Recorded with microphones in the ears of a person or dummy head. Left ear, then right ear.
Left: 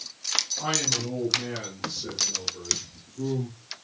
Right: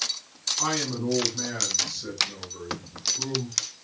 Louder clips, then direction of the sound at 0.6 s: Left 1 dB; 45° right (ahead or behind).